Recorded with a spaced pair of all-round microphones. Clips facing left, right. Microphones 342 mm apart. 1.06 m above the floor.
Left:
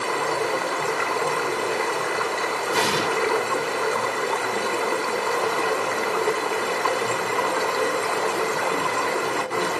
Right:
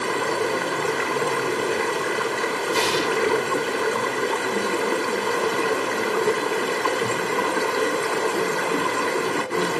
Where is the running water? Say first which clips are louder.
Right 2 dB; 25° right (ahead or behind), 1.8 m.